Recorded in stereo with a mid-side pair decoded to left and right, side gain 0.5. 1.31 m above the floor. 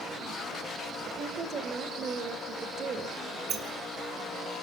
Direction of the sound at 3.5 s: 60° right.